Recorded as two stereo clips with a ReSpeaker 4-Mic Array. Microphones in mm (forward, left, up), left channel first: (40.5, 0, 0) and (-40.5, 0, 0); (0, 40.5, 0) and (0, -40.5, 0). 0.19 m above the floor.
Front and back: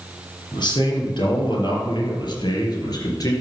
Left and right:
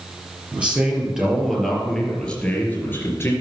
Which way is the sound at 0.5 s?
15° right.